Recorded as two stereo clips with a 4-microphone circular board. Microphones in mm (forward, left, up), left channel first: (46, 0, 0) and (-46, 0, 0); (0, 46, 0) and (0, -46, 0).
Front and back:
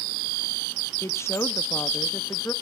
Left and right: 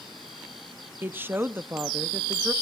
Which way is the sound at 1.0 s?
35° right.